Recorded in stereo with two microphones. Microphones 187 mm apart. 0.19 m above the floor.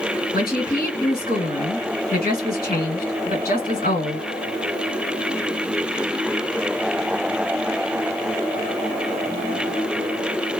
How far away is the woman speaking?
About 2 m.